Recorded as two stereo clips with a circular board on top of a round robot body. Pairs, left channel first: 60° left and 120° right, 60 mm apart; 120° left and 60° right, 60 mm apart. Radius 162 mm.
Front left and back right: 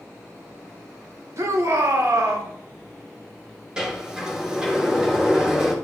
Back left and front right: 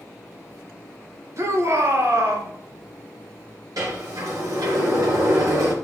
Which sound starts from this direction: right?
A shout, at 1.4 s.